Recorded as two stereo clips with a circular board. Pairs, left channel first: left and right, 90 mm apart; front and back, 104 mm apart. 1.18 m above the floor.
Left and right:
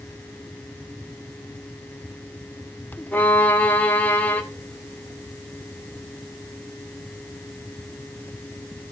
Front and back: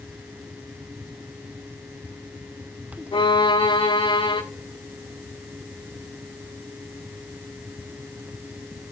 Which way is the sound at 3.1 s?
20° left.